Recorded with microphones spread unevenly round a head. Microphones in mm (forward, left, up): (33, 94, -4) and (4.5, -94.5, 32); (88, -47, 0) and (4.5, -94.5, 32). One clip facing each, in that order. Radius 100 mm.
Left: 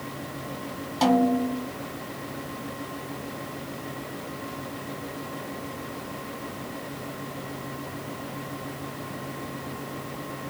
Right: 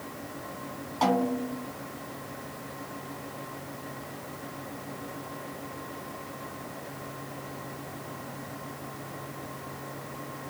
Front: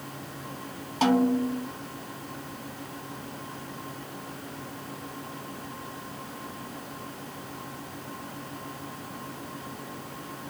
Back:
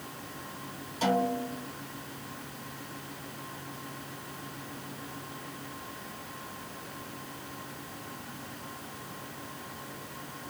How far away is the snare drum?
About 2.5 m.